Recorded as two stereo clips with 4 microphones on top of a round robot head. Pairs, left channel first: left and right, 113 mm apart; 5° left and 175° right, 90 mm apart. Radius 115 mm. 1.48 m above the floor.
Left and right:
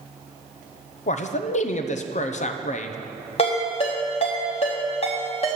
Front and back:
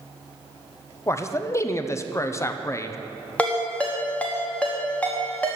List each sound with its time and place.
1.1 s a man speaking: 70° left, 0.7 m
3.4 s a ringtone: 75° left, 1.0 m